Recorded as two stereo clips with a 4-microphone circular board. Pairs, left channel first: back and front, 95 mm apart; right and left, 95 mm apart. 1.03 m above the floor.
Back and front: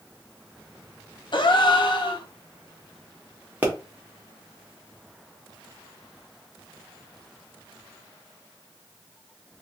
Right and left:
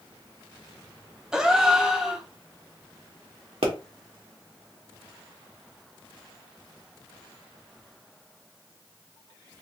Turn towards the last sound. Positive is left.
turn(degrees=75)